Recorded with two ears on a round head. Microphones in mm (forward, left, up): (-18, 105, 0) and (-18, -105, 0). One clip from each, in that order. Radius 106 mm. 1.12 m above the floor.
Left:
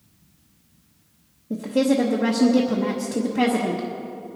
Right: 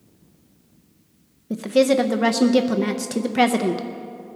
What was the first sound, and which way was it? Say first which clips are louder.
A woman speaking: right 4 dB; 80° right.